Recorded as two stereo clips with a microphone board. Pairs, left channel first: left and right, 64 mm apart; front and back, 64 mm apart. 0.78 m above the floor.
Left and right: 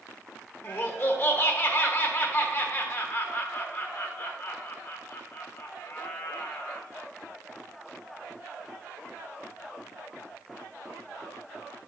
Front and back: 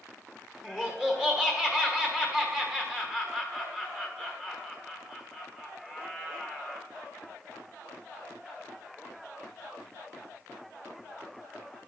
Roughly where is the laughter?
Behind left.